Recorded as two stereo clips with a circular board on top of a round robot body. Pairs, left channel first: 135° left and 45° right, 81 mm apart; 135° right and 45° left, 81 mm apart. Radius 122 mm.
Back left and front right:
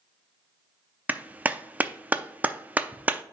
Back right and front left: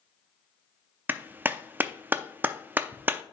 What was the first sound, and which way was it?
A clap, 5° left.